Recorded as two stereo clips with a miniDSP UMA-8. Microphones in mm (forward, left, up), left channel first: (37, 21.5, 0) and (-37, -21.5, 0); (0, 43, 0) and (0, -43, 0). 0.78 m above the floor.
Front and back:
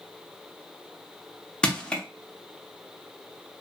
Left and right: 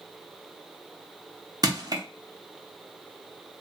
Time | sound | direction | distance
1.6 | crushing | 50° right | 0.6 m